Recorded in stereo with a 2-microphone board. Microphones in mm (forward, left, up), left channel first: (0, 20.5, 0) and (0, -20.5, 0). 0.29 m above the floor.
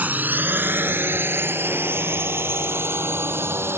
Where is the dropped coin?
I don't hear a dropped coin.